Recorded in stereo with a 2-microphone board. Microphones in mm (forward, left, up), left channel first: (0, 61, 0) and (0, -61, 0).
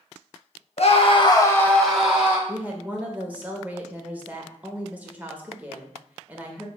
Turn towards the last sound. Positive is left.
turn(degrees=-15)  # may be behind; listen again after turning